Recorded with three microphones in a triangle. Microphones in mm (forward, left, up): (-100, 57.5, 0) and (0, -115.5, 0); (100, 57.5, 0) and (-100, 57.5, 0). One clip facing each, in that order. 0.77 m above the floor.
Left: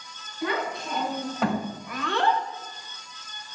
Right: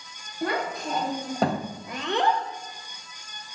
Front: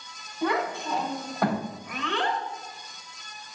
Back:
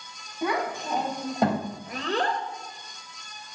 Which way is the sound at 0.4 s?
100° right.